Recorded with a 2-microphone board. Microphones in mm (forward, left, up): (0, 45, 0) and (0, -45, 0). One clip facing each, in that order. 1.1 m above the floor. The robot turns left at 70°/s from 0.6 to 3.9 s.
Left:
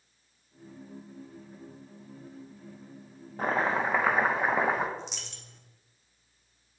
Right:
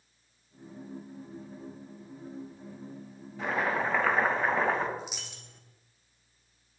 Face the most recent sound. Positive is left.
turn(degrees=-5)  # may be behind; listen again after turning